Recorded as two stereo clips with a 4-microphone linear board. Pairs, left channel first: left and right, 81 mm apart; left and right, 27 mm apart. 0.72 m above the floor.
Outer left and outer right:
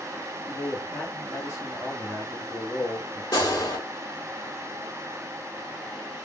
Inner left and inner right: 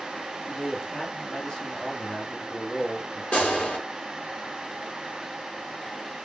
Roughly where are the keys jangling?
I don't hear keys jangling.